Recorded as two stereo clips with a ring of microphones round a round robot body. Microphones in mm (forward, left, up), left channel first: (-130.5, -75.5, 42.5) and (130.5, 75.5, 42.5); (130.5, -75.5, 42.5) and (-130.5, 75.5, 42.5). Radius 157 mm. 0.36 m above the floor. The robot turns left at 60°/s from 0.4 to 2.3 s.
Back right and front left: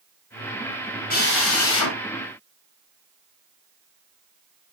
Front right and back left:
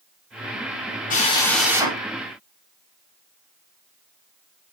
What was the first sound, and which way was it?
A drill, 90° right.